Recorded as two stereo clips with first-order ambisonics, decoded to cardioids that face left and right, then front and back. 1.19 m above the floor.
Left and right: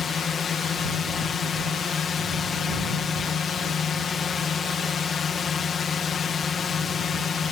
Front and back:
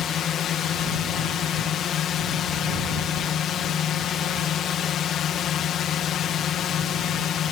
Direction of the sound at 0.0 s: 35° left.